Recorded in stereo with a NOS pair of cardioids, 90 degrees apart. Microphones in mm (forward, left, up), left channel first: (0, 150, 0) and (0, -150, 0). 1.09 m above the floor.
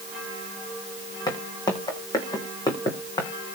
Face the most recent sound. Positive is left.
turn(degrees=15)